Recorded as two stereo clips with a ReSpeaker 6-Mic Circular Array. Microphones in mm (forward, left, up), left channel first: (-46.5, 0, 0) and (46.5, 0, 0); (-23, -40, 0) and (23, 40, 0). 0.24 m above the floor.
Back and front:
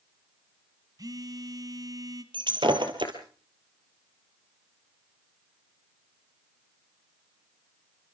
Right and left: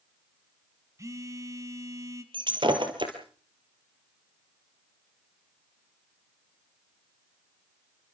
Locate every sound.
1.0 s a phone buzzing: 20° left, 1.8 m
2.3 s breaking glass: 30° left, 3 m